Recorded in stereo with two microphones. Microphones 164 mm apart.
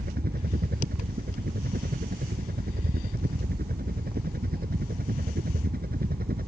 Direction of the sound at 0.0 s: 65° right (ahead or behind).